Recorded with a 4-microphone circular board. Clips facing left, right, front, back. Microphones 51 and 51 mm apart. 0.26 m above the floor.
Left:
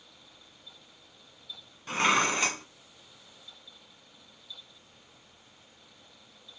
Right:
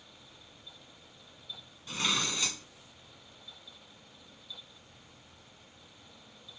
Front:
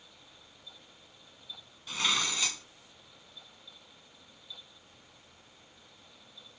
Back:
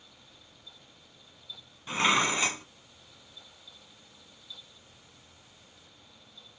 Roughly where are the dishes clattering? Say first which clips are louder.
Left 8 dB, back 6 dB; behind left.